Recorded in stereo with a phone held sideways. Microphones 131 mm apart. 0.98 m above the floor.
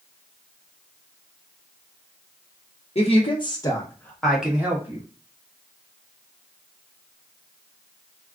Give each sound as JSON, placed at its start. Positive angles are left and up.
{"t": 3.0, "sound": "a woman speaking", "side_deg": 50, "distance_m": 1.0}